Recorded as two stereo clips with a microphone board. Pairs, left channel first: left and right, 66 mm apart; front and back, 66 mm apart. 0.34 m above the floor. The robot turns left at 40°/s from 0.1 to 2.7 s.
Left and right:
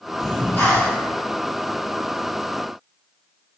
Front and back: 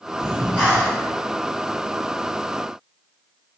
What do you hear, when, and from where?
0.2 s breathing: 140° left, 1.7 m; by 1.0 s 110° left, 1.7 m